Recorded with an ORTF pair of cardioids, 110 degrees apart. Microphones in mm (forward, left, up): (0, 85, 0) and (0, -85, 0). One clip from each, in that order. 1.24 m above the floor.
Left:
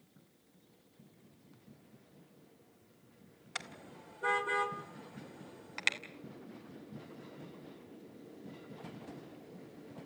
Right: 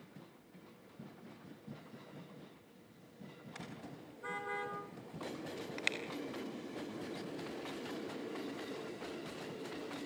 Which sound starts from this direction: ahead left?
A car horn, at 3.5 s.